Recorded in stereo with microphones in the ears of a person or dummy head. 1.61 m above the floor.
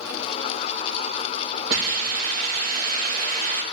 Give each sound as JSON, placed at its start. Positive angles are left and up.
{"t": 1.7, "sound": "a hiss", "side_deg": -50, "distance_m": 2.5}